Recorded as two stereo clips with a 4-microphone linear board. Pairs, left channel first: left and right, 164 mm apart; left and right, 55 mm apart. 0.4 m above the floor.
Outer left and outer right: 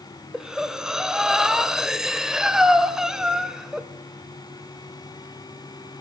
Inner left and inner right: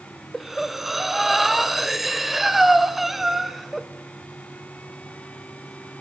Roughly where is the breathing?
Centre.